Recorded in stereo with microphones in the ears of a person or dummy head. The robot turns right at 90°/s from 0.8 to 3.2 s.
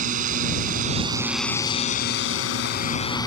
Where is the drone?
50° right (ahead or behind); by 3.3 s 25° left (ahead or behind).